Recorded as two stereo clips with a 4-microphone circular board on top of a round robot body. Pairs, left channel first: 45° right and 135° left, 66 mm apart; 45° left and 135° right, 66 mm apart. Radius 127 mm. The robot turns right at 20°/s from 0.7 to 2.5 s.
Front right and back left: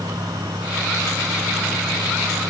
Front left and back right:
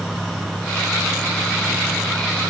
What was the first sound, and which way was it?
Only background noise.